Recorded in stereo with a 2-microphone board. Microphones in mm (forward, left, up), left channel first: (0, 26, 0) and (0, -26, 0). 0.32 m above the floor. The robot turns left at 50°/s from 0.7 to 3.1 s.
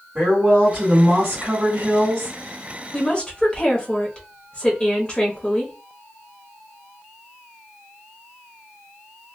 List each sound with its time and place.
0.1 s a woman speaking: 30° right, 1.5 m; by 2.4 s 115° right, 1.5 m
2.9 s a woman speaking: 20° left (ahead or behind), 0.9 m